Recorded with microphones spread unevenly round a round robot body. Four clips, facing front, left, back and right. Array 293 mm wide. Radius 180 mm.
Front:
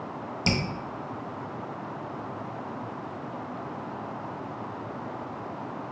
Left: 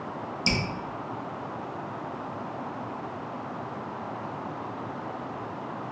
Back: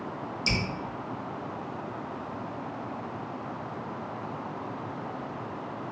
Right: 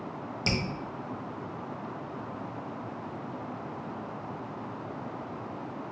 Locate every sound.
0.5 s dripping: 10° left, 0.6 m